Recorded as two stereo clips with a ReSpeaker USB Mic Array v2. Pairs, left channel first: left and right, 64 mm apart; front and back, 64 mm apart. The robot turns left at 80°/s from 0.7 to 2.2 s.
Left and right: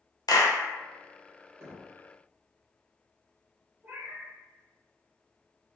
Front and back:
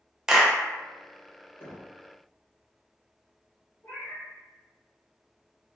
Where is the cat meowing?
30° right, 1.8 m.